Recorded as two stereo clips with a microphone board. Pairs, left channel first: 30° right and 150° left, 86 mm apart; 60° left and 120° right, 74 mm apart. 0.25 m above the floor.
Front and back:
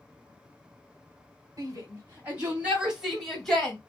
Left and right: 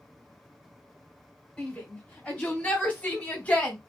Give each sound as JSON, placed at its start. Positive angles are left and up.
{"t": 1.6, "sound": "a shout", "azimuth_deg": 120, "distance_m": 1.9}